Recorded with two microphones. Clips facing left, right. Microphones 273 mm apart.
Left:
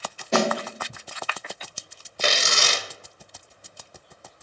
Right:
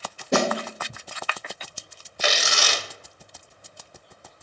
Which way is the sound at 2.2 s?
40° left (ahead or behind).